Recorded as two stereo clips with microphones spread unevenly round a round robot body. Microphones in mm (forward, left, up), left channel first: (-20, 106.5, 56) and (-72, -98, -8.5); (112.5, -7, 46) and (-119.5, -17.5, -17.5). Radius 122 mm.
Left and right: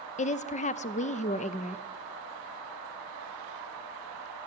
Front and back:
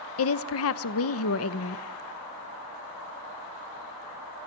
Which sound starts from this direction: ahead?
A woman speaking, at 0.2 s.